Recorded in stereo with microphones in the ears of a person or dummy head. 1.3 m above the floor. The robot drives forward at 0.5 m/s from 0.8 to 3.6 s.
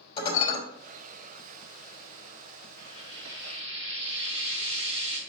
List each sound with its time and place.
0.2 s dishes clattering: 40° left (ahead or behind), 3.5 m
2.8 s frying: 30° left (ahead or behind), 4 m; by 5.2 s 25° left (ahead or behind), 4.5 m